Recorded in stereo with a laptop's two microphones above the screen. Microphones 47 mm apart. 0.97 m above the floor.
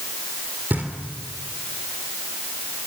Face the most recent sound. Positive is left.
turn(degrees=-45)  # may be behind; listen again after turning